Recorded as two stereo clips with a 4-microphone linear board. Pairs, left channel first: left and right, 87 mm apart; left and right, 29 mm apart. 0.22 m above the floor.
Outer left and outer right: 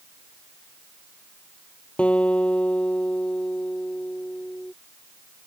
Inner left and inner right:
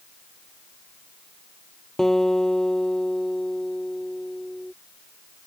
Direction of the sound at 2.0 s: 15° left (ahead or behind).